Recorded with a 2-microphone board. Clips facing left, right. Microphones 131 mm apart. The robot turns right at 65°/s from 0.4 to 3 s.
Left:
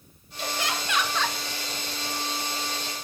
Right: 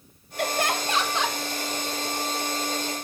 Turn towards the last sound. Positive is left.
turn(degrees=100)